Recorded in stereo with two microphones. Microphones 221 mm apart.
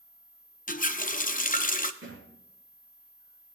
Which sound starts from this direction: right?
A thud, at 2.0 s.